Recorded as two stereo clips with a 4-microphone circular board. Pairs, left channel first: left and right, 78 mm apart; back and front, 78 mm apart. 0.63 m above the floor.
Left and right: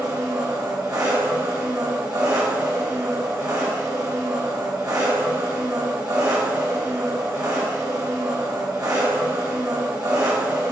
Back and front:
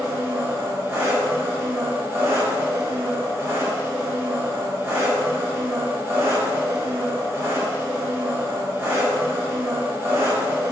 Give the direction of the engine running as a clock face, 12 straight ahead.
2 o'clock.